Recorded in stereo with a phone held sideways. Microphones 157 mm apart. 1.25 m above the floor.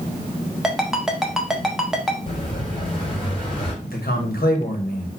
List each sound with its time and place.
0.6 s a ringtone: 5° right (ahead or behind), 1.0 m
2.3 s an explosion: 35° left (ahead or behind), 2.5 m
3.8 s a man speaking: 75° left (ahead or behind), 1.4 m